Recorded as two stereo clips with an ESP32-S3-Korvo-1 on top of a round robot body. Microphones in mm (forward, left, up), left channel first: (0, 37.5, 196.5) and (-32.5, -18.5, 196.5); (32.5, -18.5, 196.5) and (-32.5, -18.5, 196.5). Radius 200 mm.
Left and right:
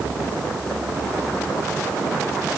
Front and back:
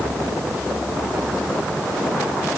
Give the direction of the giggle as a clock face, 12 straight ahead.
I don't hear a giggle.